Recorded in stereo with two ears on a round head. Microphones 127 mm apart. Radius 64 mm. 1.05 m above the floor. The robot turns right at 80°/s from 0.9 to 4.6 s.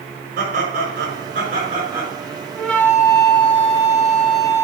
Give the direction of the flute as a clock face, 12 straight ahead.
12 o'clock.